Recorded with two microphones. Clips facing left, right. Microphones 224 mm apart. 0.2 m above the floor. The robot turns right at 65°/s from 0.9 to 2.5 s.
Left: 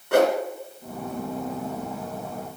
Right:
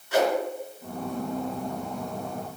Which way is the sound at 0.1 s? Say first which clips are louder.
Left 5 dB; 60° left (ahead or behind).